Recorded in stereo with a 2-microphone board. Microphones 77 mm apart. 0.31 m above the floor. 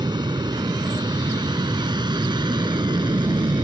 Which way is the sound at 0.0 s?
65° right (ahead or behind).